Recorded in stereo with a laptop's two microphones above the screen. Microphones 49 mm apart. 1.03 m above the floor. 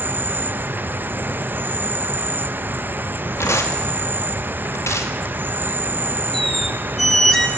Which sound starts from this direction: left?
Tearing paper, at 3.4 s.